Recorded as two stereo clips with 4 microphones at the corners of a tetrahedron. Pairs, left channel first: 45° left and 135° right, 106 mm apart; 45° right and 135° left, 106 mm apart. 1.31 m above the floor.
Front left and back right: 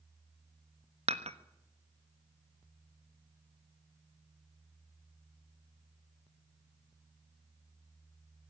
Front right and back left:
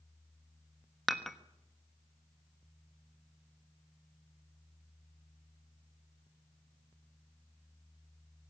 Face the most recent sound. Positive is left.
turn(degrees=-135)